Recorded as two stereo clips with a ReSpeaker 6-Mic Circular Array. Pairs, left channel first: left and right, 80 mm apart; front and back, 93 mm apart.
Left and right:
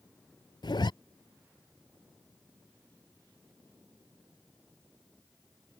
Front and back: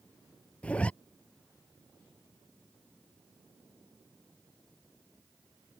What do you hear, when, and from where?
0.6 s a zipper: 75° left